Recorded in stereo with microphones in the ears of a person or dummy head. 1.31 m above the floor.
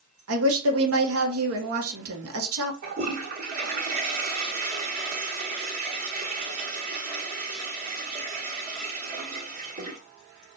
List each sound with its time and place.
0.3 s a woman speaking: 75° right (ahead or behind), 1.3 m
2.8 s a toilet flushing: 45° right (ahead or behind), 1.7 m